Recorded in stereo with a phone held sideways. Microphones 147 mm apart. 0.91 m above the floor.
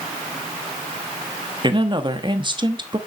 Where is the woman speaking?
35° right (ahead or behind), 1.3 m.